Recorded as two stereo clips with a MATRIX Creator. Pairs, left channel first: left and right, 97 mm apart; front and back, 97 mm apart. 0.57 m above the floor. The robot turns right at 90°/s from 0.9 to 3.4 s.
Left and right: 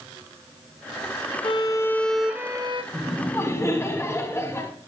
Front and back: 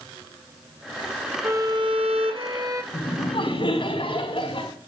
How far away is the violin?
About 1.2 m.